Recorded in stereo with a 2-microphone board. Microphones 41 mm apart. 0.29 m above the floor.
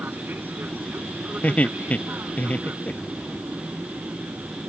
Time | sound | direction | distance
0.0 | an aircraft | 55° right (ahead or behind) | ?
1.4 | laughter | 40° left (ahead or behind) | ?